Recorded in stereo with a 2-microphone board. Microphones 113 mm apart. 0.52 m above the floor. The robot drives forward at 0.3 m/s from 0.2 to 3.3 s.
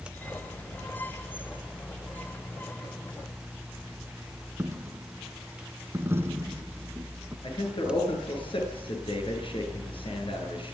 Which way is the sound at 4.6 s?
20° right (ahead or behind).